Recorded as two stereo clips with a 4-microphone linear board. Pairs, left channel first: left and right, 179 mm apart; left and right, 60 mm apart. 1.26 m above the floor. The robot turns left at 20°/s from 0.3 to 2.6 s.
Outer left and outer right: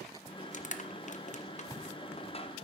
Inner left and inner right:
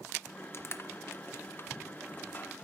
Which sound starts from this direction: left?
Crushing, at 0.5 s.